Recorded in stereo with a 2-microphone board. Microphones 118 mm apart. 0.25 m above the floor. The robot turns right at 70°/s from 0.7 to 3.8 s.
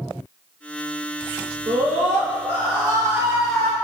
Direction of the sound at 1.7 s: 130° right.